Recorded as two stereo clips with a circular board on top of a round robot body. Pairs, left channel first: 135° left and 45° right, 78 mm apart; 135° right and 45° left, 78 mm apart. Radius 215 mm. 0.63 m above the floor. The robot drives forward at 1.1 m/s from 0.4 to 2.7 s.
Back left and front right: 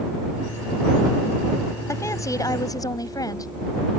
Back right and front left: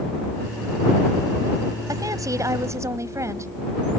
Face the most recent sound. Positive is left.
turn(degrees=95)